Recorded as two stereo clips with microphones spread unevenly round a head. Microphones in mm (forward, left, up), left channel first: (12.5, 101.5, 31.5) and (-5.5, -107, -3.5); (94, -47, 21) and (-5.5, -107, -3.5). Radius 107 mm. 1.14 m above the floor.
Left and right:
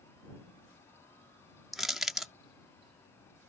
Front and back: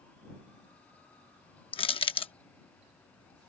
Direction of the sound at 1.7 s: 5° right.